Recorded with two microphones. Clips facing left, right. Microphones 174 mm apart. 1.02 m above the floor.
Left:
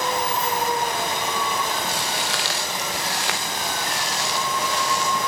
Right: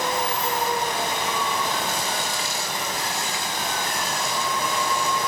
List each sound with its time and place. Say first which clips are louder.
1.9 s footsteps: even; 70° left (ahead or behind), 5 m; by 5.2 s 80° left, 7.5 m